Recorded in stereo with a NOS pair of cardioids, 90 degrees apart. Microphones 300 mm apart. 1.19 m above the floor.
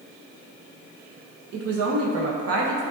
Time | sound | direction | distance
1.5 | a woman speaking | 55° right | 0.8 m